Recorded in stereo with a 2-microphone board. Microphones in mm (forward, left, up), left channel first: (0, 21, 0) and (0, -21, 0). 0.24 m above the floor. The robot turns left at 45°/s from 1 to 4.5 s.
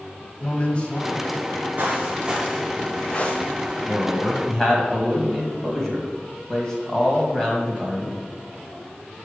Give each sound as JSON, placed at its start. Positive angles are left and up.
{"t": 0.4, "sound": "a man speaking", "azimuth_deg": 55, "distance_m": 1.4}
{"t": 1.8, "sound": "footsteps", "side_deg": -45, "distance_m": 2.5}
{"t": 3.9, "sound": "a man speaking", "side_deg": 25, "distance_m": 1.8}